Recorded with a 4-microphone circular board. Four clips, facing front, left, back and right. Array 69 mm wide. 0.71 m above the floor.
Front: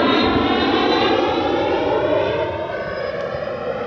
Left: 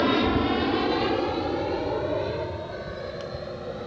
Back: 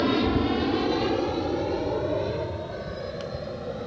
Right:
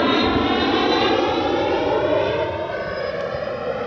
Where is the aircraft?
20° right; by 3.9 s 35° right.